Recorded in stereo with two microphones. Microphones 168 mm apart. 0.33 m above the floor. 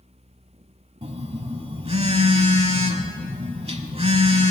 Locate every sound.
1.0 s a phone buzzing: 40° right (ahead or behind), 1.0 m